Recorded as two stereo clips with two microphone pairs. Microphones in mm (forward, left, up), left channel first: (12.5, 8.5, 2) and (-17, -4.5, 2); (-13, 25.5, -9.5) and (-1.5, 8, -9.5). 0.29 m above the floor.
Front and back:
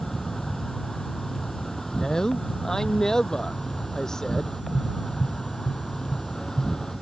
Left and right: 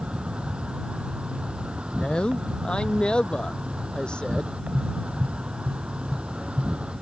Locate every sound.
0.0 s an insect: 50° right
1.9 s a man speaking: 95° left
4.7 s tapping: 10° right